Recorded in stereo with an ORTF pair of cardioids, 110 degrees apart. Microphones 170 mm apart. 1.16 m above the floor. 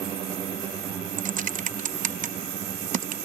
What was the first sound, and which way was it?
Typing on a keyboard, 50° right.